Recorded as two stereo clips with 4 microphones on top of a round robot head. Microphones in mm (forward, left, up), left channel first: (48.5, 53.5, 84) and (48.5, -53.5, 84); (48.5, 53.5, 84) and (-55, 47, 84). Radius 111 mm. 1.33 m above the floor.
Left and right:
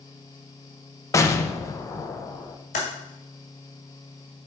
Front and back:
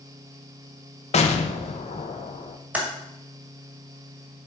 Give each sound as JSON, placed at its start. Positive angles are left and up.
{"t": 1.1, "sound": "an explosion", "azimuth_deg": 25, "distance_m": 0.9}
{"t": 2.7, "sound": "typing on a keyboard", "azimuth_deg": 110, "distance_m": 1.7}